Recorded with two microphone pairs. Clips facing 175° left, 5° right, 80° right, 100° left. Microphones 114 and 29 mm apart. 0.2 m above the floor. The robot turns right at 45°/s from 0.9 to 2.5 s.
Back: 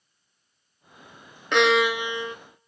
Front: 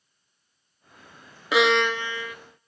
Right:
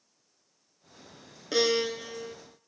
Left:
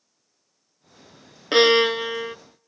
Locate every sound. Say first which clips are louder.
1.5 s a violin: back 1 dB, left 10 dB; 75° left, 0.5 m; by 2.4 s 115° left, 0.5 m